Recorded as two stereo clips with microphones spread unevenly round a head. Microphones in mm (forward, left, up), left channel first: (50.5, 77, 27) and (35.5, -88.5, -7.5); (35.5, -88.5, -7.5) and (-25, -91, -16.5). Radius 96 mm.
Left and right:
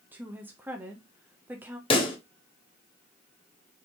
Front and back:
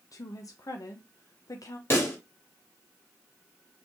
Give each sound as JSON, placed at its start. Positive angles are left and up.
{"t": 0.1, "sound": "a woman speaking", "azimuth_deg": -15, "distance_m": 0.7}
{"t": 1.9, "sound": "a pop", "azimuth_deg": 40, "distance_m": 1.1}